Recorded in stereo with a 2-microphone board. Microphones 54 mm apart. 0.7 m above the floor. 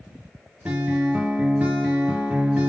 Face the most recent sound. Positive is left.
turn(degrees=-35)  # may be behind; listen again after turning